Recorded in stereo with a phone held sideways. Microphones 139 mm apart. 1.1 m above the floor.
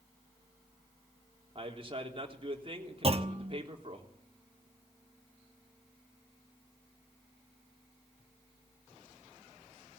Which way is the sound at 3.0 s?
45° right (ahead or behind).